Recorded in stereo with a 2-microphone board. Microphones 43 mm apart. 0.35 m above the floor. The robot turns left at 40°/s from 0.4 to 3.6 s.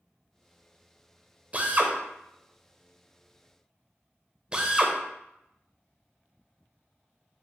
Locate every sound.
1.5 s a drill: 35° right (ahead or behind), 0.7 m; by 7.4 s 25° right (ahead or behind), 0.7 m